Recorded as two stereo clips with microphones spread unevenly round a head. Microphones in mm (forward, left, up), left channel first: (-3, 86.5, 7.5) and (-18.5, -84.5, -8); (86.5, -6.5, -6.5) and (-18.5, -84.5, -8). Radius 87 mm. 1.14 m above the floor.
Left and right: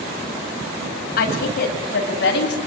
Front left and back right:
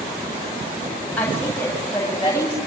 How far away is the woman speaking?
About 9 m.